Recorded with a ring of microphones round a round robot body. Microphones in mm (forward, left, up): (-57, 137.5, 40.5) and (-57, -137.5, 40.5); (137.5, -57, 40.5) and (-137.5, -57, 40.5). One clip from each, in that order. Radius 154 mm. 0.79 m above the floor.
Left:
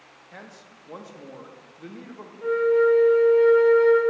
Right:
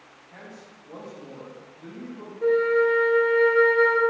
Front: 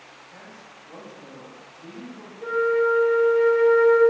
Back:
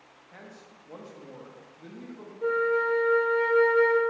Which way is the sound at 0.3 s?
120° left.